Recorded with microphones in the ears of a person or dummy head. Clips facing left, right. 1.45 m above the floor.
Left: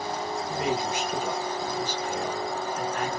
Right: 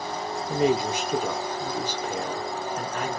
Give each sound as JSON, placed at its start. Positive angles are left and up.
{"t": 0.5, "sound": "a man speaking", "side_deg": -80, "distance_m": 1.1}